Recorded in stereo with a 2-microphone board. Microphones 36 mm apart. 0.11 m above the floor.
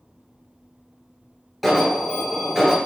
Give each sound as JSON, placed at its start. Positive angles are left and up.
{"t": 1.6, "sound": "an alarm", "side_deg": 0, "distance_m": 2.0}